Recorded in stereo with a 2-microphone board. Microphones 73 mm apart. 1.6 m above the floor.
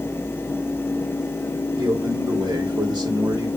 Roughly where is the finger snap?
I don't hear a finger snap.